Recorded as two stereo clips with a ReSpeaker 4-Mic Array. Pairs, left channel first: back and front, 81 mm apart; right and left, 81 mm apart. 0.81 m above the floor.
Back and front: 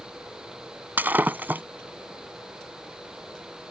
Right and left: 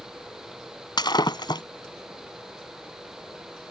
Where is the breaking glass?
65° right.